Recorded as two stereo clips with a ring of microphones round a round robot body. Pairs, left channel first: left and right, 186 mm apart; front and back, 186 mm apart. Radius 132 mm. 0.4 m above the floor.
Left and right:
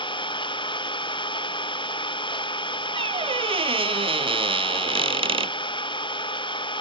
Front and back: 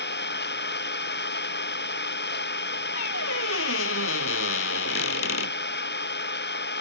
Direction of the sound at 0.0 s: 25° left.